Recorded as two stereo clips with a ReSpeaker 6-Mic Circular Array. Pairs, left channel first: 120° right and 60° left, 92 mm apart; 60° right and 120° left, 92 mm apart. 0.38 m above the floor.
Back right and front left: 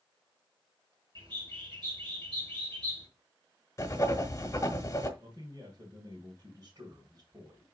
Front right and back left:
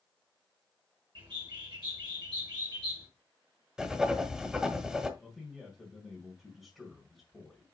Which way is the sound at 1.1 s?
90° left.